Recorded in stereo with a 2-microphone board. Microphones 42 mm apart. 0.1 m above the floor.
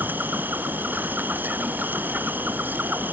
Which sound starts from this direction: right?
An insect, at 0.0 s.